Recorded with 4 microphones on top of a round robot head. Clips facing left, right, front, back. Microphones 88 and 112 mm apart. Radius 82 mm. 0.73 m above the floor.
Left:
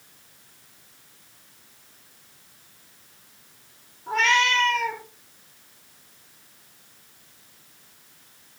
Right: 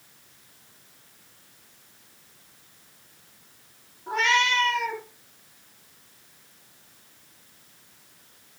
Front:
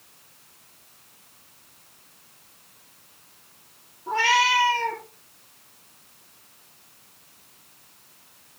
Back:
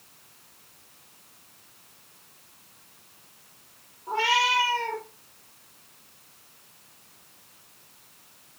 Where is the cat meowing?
15° right, 5.5 m.